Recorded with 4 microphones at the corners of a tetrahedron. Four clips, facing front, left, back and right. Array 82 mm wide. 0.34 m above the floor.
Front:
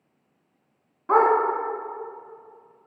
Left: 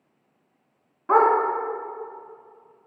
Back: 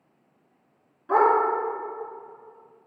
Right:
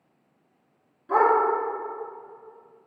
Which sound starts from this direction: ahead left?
A dog barking, at 1.1 s.